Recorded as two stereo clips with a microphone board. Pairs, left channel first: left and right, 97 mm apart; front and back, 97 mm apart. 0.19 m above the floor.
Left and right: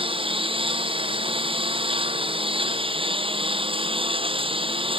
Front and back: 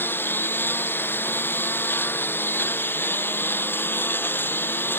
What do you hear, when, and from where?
0.0 s a lawn mower: 70° right